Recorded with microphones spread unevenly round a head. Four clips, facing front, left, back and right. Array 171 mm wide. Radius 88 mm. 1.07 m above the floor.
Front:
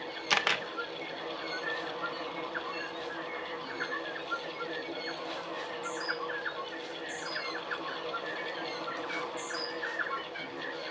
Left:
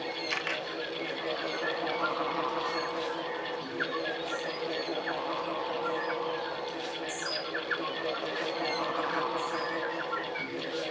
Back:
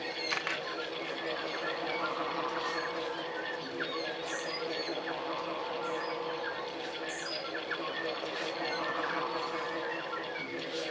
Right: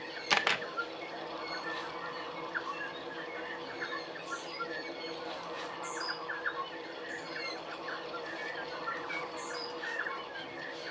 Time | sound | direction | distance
0.3 | a camera shutter | 40° right | 0.9 m